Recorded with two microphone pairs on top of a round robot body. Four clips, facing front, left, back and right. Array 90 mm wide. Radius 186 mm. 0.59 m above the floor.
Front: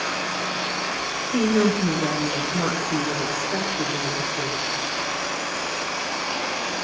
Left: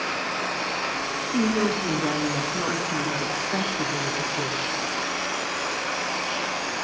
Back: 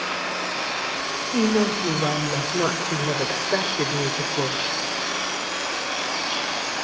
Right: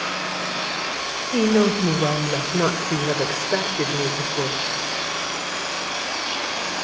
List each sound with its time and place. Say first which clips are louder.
1.3 s a woman speaking: right 5 dB, front 1 dB; 100° right, 3.5 m; by 4.8 s 140° right, 2.5 m